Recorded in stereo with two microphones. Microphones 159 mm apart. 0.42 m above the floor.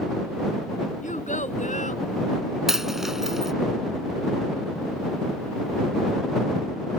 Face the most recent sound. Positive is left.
turn(degrees=0)  # may be behind; listen again after turning